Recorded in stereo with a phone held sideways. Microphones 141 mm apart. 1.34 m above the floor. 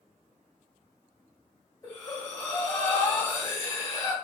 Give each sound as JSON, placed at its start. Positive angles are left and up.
{"t": 1.8, "sound": "breathing", "side_deg": 25, "distance_m": 2.0}